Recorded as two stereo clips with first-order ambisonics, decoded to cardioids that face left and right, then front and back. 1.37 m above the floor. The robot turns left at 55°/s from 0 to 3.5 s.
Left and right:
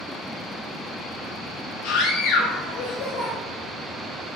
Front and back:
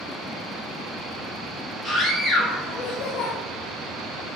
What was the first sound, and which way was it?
A scream, 110° left.